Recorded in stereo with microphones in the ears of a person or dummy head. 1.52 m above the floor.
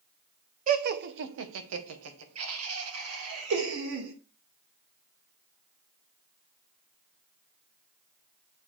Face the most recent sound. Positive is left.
turn(degrees=-75)  # may be behind; listen again after turning